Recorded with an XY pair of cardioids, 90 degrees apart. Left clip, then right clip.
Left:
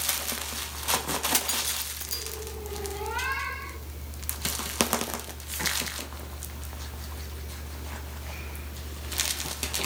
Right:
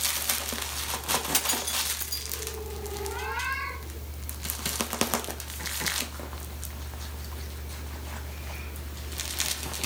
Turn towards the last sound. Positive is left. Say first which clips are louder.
# right 1 dB
turn(degrees=10)